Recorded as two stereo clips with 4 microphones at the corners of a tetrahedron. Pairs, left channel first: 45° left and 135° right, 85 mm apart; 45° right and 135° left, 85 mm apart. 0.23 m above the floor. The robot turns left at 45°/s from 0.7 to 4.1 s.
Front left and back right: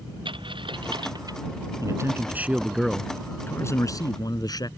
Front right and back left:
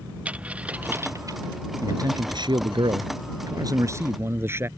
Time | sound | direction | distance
0.2 | a dropped coin | 150° right | ?
1.8 | a man speaking | straight behind | ?